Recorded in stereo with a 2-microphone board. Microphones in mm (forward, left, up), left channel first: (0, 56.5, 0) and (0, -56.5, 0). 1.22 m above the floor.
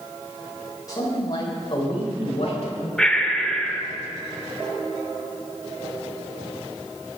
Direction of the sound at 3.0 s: 5° left (ahead or behind).